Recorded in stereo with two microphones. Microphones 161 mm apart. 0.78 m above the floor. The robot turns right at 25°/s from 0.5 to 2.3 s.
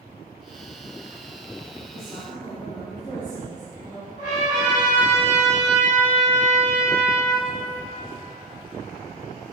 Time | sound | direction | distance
1.9 | a woman speaking | 15° left (ahead or behind) | 1.2 m
4.2 | a trumpet | 55° left (ahead or behind) | 1.9 m